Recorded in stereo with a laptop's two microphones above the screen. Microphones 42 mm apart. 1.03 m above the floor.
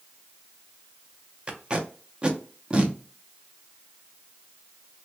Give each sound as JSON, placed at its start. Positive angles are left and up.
{"t": 1.5, "sound": "tape being pulled", "side_deg": -25, "distance_m": 0.6}